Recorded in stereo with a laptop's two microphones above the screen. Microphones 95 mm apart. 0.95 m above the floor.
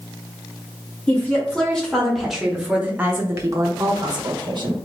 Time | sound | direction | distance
1.1 | a woman speaking | 15° left (ahead or behind) | 1.6 m